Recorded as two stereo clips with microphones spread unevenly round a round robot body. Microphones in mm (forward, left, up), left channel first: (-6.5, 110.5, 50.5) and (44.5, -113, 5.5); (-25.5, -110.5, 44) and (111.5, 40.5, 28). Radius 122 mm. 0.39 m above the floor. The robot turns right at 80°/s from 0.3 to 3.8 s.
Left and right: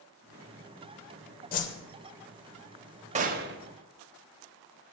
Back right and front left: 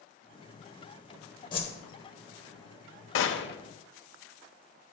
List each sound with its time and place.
1.5 s a whoosh: 160° left, 0.8 m; by 1.7 s 175° left, 0.8 m
3.1 s a gunshot: 130° right, 0.7 m; by 3.6 s 95° right, 0.7 m